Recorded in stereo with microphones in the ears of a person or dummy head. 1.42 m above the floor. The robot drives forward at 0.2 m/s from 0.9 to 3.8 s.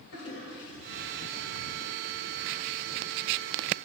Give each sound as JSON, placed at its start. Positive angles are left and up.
{"t": 0.1, "sound": "a toilet flushing", "side_deg": 80, "distance_m": 5.0}